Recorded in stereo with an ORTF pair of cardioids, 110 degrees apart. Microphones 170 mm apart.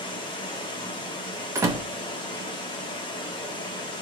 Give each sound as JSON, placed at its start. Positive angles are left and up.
{"t": 0.0, "sound": "running water", "azimuth_deg": 30, "distance_m": 0.8}
{"t": 1.6, "sound": "a door slam", "azimuth_deg": -15, "distance_m": 0.7}